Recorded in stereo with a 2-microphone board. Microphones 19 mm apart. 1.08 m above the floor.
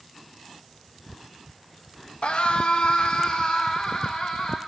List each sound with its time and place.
2.2 s a scream: 75° left (ahead or behind), 1.1 m; by 4.6 s 55° left (ahead or behind), 3 m